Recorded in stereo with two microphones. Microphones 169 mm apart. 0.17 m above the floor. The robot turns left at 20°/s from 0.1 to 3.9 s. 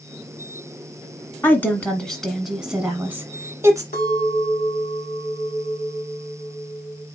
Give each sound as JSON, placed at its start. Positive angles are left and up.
{"t": 1.4, "sound": "a woman speaking", "azimuth_deg": 20, "distance_m": 1.3}
{"t": 3.9, "sound": "a clink", "side_deg": 70, "distance_m": 2.0}